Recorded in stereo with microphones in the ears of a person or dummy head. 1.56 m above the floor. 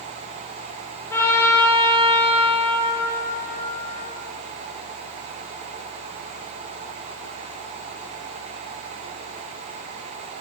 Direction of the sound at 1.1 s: 15° left (ahead or behind).